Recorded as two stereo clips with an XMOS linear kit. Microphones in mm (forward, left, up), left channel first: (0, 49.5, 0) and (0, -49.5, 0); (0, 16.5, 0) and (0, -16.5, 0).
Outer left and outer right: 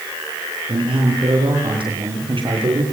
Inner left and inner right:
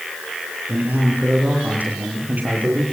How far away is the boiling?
No boiling in this recording.